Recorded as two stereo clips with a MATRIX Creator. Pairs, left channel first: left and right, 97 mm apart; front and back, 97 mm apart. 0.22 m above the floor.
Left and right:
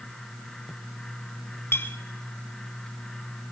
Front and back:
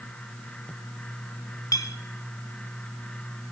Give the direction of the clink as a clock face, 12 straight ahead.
11 o'clock.